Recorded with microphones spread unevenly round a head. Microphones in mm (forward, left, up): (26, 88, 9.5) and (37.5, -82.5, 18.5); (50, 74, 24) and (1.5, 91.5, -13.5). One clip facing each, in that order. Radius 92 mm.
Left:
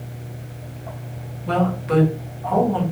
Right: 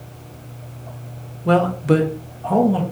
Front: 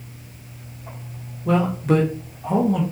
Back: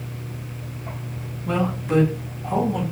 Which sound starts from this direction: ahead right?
A man speaking, at 1.4 s.